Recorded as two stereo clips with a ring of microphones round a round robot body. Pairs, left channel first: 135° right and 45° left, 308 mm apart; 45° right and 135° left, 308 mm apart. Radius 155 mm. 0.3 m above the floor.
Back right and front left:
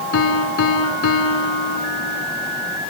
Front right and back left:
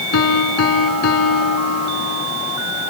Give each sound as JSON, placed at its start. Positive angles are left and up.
{"t": 0.1, "sound": "a piano", "azimuth_deg": -90, "distance_m": 1.9}